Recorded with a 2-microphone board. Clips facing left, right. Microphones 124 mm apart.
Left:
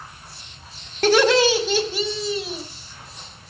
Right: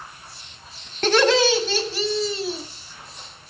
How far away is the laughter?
About 2.5 m.